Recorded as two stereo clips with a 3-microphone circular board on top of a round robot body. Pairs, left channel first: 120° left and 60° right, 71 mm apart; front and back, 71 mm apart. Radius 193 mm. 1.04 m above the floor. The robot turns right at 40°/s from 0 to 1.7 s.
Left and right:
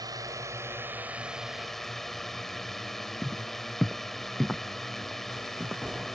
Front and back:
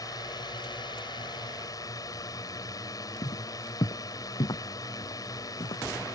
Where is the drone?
35° right; by 6.2 s 35° left.